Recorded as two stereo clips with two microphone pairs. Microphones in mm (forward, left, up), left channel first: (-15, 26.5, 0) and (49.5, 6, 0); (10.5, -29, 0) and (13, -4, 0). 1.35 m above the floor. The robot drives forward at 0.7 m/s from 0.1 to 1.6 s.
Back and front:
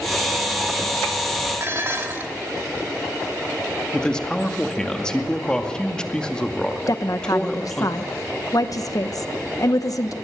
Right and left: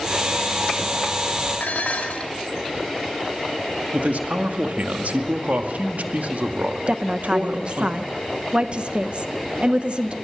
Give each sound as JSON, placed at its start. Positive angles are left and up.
{"t": 1.6, "sound": "dishes clattering", "azimuth_deg": -70, "distance_m": 2.0}
{"t": 3.9, "sound": "a man speaking", "azimuth_deg": 85, "distance_m": 2.0}
{"t": 6.9, "sound": "a woman speaking", "azimuth_deg": 130, "distance_m": 0.8}